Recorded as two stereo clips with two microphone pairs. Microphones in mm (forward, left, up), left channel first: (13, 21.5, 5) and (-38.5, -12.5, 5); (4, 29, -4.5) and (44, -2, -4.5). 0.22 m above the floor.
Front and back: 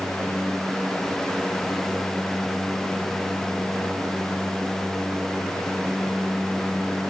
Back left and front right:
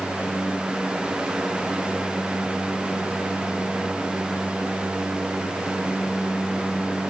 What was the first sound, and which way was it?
Only background noise.